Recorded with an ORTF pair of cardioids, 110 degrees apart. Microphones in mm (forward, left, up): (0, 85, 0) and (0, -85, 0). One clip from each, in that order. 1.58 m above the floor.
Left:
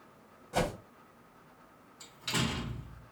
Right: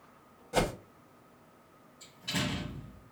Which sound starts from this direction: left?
A door slam, at 2.0 s.